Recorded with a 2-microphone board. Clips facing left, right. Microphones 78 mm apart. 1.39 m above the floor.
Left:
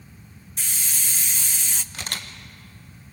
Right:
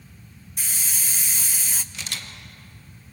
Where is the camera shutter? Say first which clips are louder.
Left 2 dB; 50° left (ahead or behind), 1.6 m.